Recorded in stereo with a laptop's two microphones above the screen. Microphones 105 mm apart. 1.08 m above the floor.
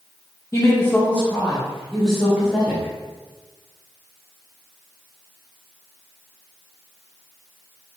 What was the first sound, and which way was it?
A woman speaking, 30° left (ahead or behind).